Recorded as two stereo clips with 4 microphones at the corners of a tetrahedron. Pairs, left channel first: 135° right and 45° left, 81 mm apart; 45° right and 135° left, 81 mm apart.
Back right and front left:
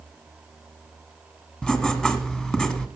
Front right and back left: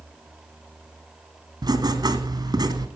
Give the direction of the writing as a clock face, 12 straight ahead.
7 o'clock.